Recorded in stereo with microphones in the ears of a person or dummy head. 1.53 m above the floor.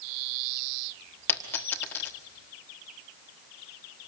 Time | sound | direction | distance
1.3 | a dropped coin | 10° left (ahead or behind) | 1.3 m